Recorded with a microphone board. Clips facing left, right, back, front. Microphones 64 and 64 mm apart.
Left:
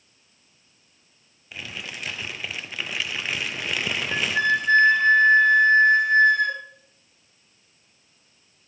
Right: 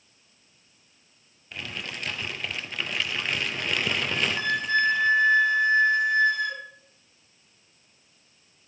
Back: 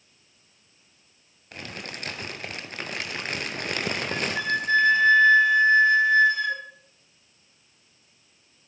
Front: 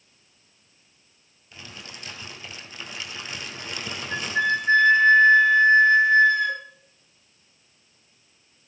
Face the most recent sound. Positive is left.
turn(degrees=60)